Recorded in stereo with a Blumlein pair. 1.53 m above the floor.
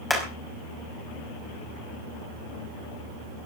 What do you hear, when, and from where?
0.1 s hammering: 5° left, 5.5 m